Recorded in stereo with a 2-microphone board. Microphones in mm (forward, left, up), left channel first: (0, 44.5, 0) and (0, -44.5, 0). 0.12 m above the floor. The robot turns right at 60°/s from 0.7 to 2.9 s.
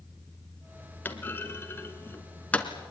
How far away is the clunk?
About 1.7 m.